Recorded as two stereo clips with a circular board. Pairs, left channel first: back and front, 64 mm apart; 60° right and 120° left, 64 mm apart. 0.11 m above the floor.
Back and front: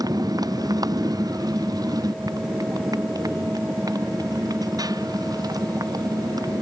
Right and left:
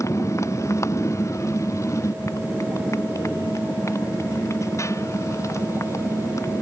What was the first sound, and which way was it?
A motorcycle, 15° right.